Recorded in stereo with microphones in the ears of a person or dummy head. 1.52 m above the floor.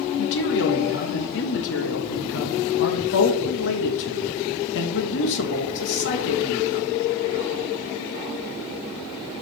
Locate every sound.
0.2 s a man speaking: 70° left (ahead or behind), 1.6 m